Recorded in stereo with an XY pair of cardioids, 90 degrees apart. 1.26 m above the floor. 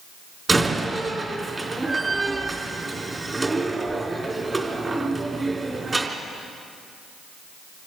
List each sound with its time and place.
0.5 s a door slam: 30° right, 3 m